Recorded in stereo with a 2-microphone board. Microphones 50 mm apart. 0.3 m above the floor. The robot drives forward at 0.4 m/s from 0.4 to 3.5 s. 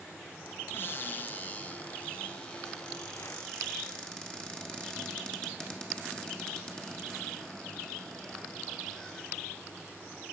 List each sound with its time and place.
0.7 s a cupboard door: 50° left (ahead or behind), 0.5 m; by 9.2 s 15° left (ahead or behind), 1.5 m